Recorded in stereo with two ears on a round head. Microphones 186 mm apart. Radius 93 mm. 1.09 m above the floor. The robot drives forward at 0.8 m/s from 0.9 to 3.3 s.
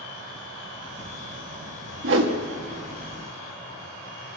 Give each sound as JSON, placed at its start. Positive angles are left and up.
{"t": 2.0, "sound": "a whoosh", "side_deg": -65, "distance_m": 1.4}